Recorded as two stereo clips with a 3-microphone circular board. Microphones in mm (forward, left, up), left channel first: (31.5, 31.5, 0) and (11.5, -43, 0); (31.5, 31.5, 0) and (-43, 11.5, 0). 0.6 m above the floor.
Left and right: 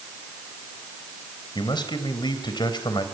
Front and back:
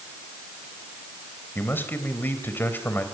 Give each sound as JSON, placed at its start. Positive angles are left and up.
{"t": 1.6, "sound": "a man speaking", "azimuth_deg": 80, "distance_m": 3.5}